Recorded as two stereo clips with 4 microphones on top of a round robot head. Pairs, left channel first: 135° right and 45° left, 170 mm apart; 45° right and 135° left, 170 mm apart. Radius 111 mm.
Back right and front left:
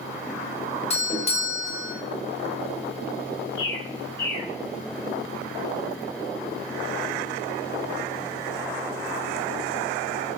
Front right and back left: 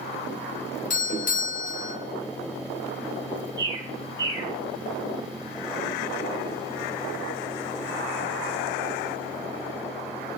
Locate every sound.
0.9 s a doorbell: 85° right, 3 m
3.6 s a bird: 155° right, 5.5 m